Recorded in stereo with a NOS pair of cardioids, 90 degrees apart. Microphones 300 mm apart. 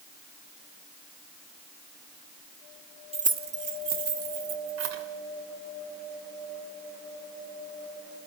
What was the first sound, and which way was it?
Keys jangling, 20° right.